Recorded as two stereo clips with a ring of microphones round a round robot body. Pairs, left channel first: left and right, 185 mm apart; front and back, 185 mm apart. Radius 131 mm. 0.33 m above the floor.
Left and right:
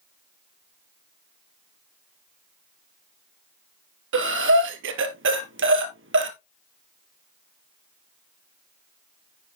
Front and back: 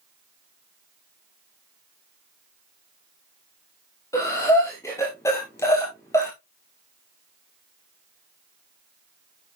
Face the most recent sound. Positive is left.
turn(degrees=-80)